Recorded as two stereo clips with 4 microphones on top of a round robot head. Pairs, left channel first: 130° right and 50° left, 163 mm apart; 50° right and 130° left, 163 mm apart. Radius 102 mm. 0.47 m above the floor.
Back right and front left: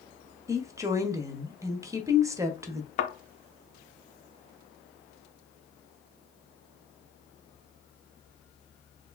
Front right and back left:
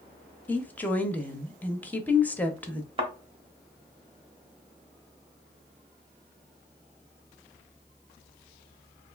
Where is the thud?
175° right, 0.7 m.